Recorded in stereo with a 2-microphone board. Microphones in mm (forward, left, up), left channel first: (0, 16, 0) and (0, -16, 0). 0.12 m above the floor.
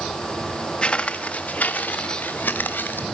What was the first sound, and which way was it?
Footsteps, 25° left (ahead or behind).